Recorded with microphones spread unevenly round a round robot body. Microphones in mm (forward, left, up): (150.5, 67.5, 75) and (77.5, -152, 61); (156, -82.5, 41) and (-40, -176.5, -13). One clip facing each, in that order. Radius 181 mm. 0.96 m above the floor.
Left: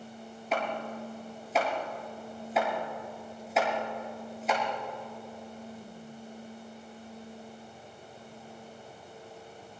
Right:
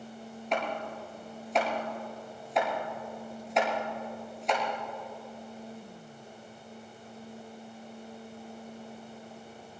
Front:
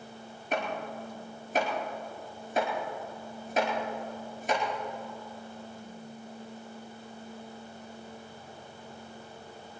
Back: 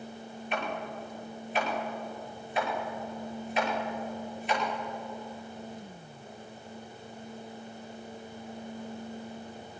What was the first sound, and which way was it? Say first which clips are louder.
Chopping: left 1 dB, front 2 dB; 15° right.